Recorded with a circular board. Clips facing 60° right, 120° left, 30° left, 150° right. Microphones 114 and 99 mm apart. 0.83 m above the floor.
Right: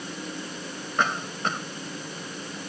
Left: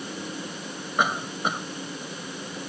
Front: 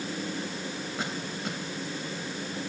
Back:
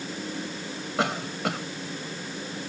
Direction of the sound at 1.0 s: 160° right.